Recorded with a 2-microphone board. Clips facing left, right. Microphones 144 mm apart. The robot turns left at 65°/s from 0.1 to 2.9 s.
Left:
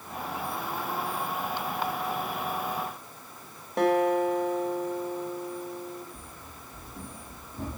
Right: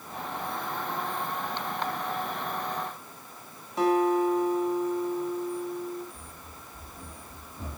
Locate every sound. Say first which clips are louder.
3.8 s a guitar: even; 65° left (ahead or behind), 3.5 m
6.1 s running footsteps: left 1 dB; 80° left, 7 m; by 7.8 s 70° left (ahead or behind), 6 m